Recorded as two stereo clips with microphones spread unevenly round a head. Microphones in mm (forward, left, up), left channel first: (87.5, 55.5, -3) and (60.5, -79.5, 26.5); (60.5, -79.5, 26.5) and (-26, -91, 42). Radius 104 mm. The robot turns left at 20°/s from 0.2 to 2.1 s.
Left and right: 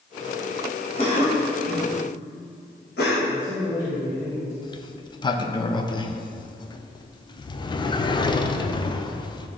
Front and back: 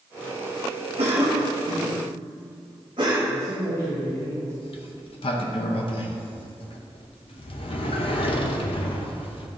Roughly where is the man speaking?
Behind.